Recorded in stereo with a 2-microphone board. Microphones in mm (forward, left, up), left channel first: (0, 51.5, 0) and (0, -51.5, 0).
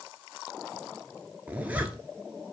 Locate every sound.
1.5 s a zipper: 15° right (ahead or behind), 0.6 m